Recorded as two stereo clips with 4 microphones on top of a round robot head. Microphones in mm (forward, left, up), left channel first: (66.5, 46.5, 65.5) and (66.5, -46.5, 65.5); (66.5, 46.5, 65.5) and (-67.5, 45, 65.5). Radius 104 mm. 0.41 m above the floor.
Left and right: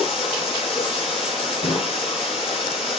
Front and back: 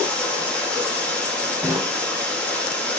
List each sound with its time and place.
0.0 s running water: 80° left, 5.5 m
1.6 s a snare drum: 105° left, 4 m